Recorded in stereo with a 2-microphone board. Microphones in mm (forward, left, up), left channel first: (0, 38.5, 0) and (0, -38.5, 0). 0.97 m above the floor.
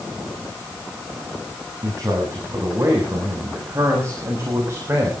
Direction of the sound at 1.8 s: 45° right (ahead or behind).